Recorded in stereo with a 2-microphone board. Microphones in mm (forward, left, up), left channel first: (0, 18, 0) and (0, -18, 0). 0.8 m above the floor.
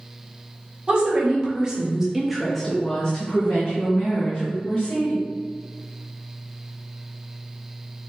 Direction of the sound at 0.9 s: 30° right (ahead or behind).